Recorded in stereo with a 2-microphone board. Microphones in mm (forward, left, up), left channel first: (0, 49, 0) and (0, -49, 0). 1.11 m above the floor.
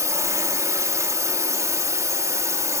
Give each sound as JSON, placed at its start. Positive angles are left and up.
{"t": 0.0, "sound": "a drone", "side_deg": -35}